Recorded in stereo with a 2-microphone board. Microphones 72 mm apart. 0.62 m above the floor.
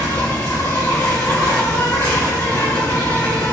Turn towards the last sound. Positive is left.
turn(degrees=60)  # may be behind; listen again after turning